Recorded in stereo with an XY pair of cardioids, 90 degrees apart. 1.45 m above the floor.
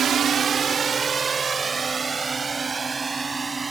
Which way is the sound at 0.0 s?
60° right.